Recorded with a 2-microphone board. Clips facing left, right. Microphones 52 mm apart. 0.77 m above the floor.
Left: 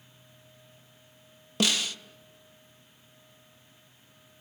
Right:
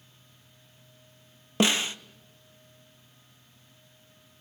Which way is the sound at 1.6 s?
30° right (ahead or behind).